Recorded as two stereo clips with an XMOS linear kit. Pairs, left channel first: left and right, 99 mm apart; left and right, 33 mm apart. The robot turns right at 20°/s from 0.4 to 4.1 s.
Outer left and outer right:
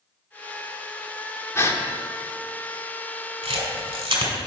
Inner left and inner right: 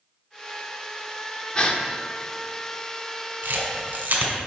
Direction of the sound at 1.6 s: 25° left (ahead or behind).